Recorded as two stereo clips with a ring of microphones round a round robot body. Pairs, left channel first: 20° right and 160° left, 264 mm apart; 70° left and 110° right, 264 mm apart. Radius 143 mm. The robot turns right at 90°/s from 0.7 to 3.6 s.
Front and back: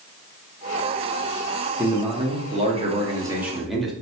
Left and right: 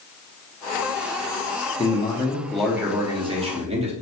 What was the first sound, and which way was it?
A man speaking, 85° left.